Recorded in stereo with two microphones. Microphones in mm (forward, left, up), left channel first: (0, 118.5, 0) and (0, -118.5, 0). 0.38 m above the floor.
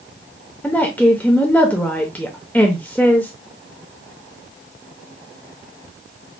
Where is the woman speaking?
5° left (ahead or behind), 0.8 m.